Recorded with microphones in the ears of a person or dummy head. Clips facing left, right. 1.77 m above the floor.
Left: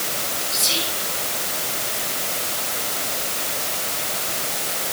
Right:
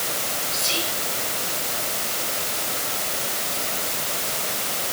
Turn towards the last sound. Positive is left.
turn(degrees=65)  # may be behind; listen again after turning